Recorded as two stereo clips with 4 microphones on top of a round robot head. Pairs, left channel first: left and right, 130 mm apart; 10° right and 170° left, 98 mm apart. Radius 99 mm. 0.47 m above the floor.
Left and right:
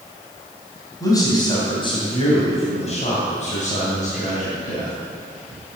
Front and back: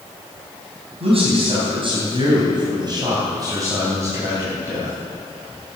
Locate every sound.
1.0 s a man speaking: 155° left, 4 m; by 4.9 s 100° left, 4.5 m